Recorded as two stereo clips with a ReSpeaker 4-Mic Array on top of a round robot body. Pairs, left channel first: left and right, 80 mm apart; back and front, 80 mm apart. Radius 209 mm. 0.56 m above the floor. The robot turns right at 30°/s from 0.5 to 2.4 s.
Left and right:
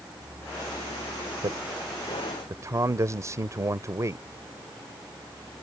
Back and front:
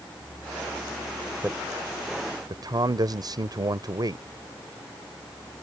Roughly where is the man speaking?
Ahead right.